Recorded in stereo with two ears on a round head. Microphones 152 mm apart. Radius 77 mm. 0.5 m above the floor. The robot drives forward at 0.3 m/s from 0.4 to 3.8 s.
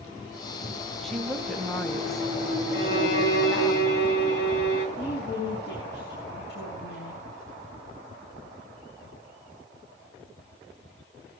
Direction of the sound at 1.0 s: Centre (ahead or behind).